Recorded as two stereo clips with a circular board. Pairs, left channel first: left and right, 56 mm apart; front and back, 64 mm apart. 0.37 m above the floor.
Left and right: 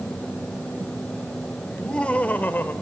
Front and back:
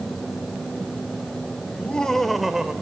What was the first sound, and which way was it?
Laughter, 25° left.